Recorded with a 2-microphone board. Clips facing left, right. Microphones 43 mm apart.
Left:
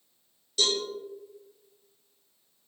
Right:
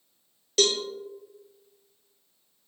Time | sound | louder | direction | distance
0.6 | a cowbell | right 4 dB | 75° right (ahead or behind) | 0.8 m